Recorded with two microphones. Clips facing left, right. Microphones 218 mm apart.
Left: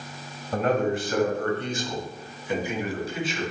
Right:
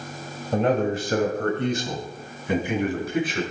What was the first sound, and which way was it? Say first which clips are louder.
A man speaking: right 2 dB; 25° right (ahead or behind).